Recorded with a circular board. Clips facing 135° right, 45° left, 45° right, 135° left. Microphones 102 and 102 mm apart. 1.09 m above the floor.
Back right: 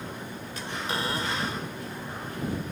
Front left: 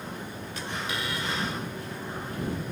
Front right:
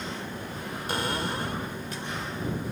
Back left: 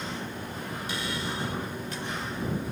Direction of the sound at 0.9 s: 80° right.